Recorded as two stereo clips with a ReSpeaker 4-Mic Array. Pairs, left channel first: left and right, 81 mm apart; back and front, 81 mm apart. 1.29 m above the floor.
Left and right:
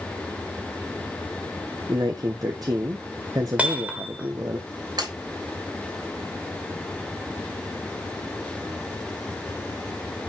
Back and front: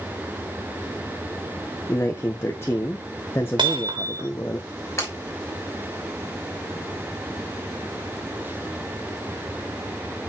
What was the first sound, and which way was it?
A man speaking, 125° right.